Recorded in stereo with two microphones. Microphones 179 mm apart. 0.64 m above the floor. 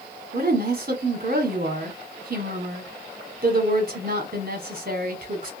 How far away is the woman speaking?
About 1.5 m.